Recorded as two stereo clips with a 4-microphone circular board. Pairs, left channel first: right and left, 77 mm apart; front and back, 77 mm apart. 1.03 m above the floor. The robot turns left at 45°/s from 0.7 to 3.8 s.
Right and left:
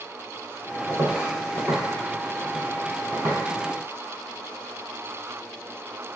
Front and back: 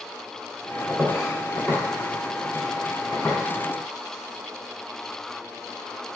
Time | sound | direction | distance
0.9 | footsteps | 105° left | 1.6 m